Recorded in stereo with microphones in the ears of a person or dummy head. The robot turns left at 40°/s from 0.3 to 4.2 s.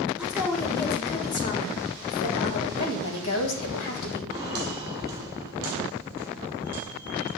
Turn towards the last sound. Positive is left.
turn(degrees=-15)  # may be behind; listen again after turning